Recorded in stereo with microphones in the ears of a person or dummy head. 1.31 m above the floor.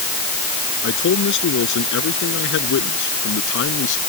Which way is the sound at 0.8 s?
65° left (ahead or behind).